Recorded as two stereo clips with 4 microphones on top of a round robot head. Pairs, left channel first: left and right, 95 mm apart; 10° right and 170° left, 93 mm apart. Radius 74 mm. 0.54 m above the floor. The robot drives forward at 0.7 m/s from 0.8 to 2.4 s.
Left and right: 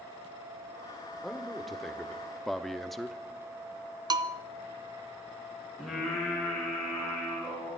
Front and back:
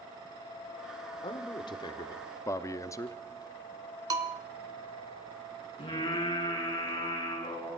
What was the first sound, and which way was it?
A man speaking, straight ahead.